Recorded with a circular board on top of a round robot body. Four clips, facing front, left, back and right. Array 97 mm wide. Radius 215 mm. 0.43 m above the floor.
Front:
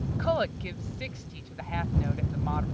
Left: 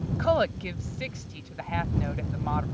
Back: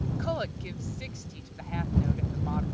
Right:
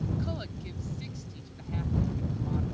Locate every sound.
0.2 s a woman speaking: 70° left